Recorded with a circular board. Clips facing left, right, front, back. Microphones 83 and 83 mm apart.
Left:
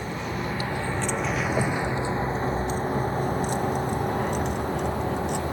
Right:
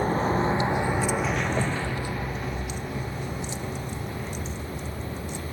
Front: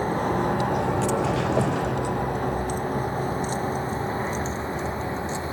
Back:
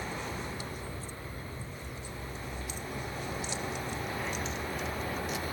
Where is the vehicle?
40° right; by 5.5 s 60° left.